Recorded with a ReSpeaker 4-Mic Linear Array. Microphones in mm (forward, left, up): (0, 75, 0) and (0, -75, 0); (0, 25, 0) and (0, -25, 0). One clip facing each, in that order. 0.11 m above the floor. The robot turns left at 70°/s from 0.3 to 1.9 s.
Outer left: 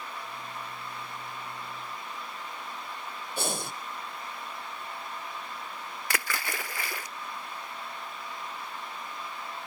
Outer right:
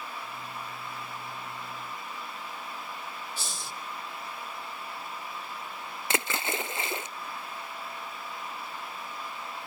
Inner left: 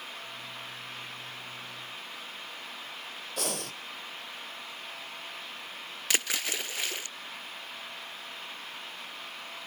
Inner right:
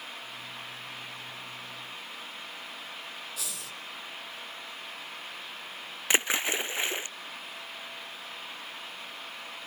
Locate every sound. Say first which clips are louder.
3.4 s breathing: outer left 7 dB, inner left 6 dB; 60° left (ahead or behind), 0.7 m
6.1 s a splash: outer right 4 dB, inner right 4 dB; 25° right (ahead or behind), 0.5 m